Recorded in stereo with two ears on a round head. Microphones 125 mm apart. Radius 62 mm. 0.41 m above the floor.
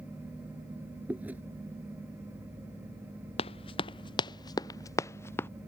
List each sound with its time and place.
1.1 s chewing: 10° right (ahead or behind)
3.4 s running footsteps: 40° left (ahead or behind); by 5.5 s 15° left (ahead or behind)